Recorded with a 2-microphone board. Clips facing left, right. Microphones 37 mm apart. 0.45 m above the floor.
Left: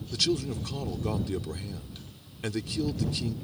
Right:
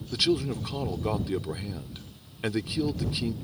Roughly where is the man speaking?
Right.